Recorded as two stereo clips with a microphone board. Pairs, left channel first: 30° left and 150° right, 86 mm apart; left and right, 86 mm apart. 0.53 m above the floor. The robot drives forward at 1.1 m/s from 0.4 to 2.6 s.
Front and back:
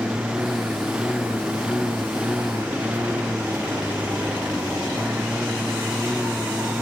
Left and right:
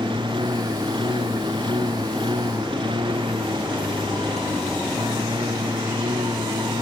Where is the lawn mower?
70° right; by 6.8 s 75° right.